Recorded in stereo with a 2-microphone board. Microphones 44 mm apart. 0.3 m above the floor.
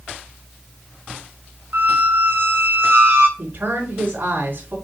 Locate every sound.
1.7 s a squeak: 55° right (ahead or behind), 0.9 m
3.4 s a woman speaking: 45° right (ahead or behind), 3 m